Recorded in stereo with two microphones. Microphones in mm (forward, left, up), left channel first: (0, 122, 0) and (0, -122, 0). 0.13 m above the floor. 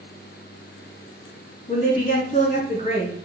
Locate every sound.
1.7 s a woman speaking: 25° left (ahead or behind), 1.6 m